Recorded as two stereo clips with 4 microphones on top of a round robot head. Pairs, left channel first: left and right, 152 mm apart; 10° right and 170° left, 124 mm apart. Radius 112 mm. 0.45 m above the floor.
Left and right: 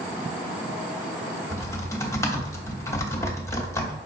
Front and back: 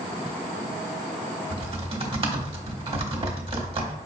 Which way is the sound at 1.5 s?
155° left.